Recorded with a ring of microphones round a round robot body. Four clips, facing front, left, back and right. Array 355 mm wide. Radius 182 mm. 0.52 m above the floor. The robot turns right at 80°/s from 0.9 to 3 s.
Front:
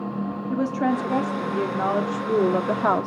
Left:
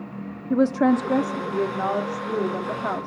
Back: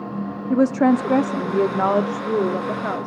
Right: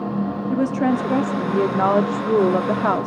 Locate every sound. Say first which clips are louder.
0.5 s a woman speaking: left 2 dB, back 7 dB; 155° left, 1.1 m; by 3.1 s 35° right, 1.1 m